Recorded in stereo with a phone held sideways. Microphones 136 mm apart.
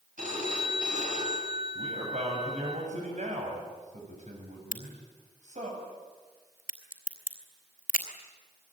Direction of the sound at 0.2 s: 70° right (ahead or behind).